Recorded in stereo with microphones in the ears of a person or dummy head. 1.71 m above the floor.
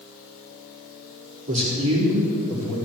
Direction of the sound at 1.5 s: 35° right (ahead or behind).